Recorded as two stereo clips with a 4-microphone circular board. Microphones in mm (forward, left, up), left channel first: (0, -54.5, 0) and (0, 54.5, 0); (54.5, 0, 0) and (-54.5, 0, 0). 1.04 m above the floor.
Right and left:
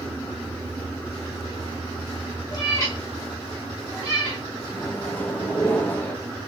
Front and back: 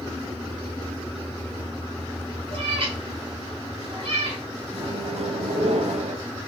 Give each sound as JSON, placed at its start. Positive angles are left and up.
{"t": 2.5, "sound": "a cat meowing", "azimuth_deg": -145, "distance_m": 2.5}
{"t": 4.7, "sound": "a microwave", "azimuth_deg": -165, "distance_m": 1.0}